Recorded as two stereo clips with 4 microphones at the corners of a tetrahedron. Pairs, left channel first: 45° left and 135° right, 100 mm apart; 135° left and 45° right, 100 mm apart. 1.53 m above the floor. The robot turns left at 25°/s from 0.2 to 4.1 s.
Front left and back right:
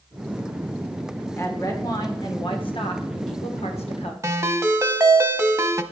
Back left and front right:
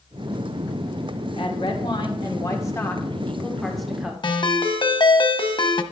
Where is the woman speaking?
105° left, 1.6 m; by 4.1 s 40° left, 1.6 m.